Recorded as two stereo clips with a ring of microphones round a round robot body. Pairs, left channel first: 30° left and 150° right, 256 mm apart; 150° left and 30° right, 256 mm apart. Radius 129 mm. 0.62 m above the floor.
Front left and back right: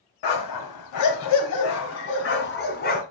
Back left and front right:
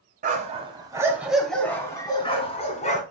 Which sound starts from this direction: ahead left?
A dog barking, at 0.2 s.